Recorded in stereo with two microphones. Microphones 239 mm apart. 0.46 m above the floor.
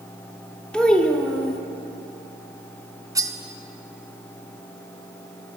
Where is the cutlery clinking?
15° right (ahead or behind), 0.5 m.